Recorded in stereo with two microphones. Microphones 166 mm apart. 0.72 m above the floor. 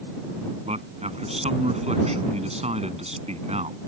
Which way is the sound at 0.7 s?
40° right (ahead or behind).